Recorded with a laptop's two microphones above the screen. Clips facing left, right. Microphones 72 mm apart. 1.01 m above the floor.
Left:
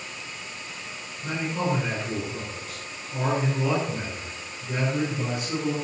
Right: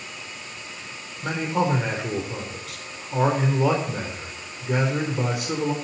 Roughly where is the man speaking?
Right.